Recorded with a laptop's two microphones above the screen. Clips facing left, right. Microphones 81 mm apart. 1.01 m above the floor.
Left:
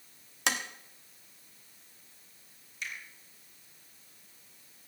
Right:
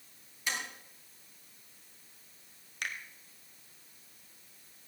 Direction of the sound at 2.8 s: 65° right (ahead or behind).